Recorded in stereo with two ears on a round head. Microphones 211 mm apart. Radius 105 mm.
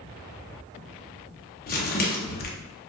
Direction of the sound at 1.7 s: 40° left (ahead or behind).